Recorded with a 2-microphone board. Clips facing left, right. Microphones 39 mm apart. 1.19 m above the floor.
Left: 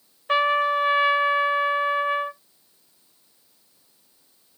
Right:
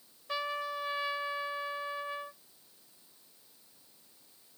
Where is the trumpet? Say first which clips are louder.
Left 15 dB; 55° left (ahead or behind).